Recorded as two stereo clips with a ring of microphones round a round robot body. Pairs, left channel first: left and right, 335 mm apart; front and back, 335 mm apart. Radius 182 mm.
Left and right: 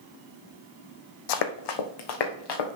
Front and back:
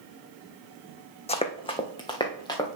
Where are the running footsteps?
75° left, 0.9 m; by 2.8 s 80° left, 2 m.